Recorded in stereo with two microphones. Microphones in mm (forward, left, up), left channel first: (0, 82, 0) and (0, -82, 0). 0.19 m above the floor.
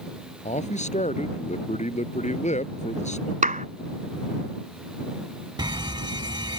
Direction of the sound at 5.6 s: 25° right (ahead or behind).